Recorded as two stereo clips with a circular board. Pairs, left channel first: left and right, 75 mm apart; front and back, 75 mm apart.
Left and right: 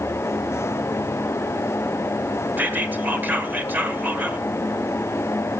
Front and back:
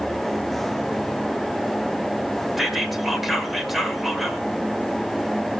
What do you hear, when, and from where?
2.6 s whispering: 95° right, 1.2 m